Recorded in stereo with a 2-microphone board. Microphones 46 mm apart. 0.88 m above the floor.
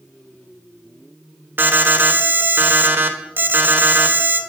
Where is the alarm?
55° right (ahead or behind), 0.8 m.